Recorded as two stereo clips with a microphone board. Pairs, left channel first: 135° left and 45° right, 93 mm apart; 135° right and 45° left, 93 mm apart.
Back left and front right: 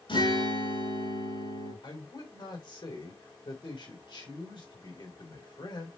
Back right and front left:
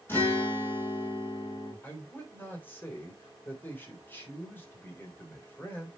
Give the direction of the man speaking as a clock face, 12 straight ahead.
7 o'clock.